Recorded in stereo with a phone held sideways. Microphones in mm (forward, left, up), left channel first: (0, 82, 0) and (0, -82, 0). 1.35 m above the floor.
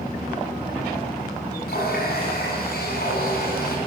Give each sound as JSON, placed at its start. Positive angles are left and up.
{"t": 1.7, "sound": "a running tap", "side_deg": 75, "distance_m": 8.5}